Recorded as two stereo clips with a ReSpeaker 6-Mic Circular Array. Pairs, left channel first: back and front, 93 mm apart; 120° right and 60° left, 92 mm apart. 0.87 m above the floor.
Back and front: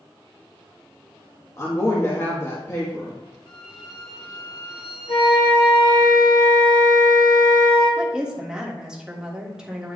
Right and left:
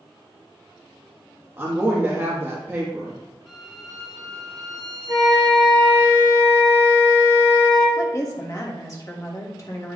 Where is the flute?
150° right, 3 m.